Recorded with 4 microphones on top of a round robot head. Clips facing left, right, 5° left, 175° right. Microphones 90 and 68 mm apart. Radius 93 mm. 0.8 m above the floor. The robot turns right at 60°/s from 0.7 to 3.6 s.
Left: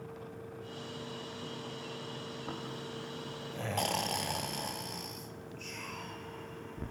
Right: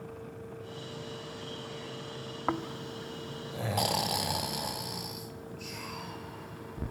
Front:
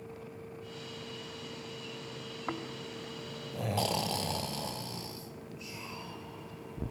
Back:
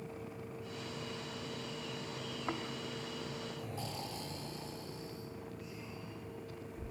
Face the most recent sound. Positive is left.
turn(degrees=-10)